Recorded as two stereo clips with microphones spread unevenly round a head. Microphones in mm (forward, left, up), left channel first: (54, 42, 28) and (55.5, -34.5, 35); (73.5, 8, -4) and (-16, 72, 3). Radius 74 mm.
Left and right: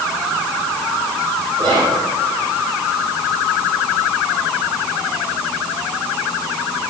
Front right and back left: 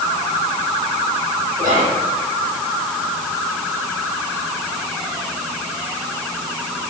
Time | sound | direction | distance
1.6 | whispering | 140° right | 3.5 m